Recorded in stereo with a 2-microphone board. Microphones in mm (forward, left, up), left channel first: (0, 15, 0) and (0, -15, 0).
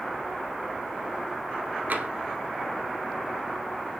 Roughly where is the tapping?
Right.